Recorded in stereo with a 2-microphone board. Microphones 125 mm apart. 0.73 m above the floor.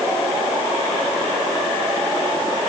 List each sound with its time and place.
Only background noise.